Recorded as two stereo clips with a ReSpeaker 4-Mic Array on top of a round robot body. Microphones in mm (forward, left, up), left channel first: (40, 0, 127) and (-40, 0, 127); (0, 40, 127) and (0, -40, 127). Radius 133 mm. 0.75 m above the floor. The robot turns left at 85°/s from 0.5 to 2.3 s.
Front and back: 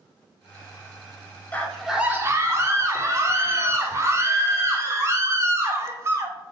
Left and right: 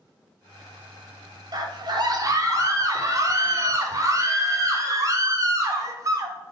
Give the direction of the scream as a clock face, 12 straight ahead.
2 o'clock.